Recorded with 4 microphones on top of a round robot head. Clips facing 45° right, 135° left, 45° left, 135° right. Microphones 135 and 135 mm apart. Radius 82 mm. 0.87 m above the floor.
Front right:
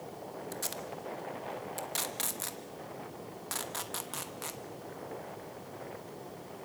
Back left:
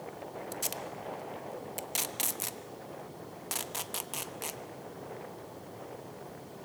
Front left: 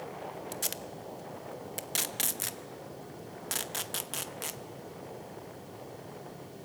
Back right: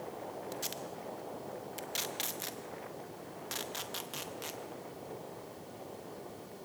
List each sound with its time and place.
0.5 s tape being pulled: 65° left, 1.0 m